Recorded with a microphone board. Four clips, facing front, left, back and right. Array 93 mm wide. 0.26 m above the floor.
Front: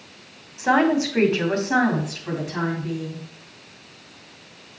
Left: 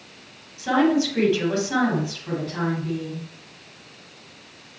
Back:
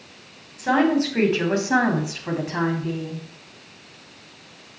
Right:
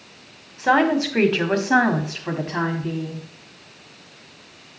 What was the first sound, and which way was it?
A woman speaking, 65° right.